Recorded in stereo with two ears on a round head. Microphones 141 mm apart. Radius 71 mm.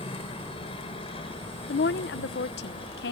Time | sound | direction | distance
0.0 | a helicopter | 35° left (ahead or behind) | ?
1.7 | a woman speaking | 70° left (ahead or behind) | ?